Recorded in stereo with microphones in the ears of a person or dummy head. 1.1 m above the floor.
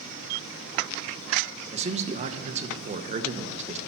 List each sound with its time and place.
1.7 s a man speaking: 35° right (ahead or behind), 1.0 m